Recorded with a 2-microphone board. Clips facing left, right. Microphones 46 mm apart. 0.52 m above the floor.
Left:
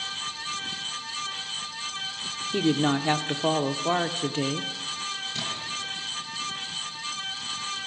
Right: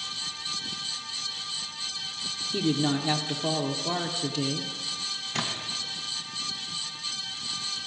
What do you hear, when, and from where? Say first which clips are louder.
2.5 s a woman speaking: left 3 dB; 35° left (ahead or behind), 0.9 m
5.3 s a splash: even; 55° right (ahead or behind), 2.5 m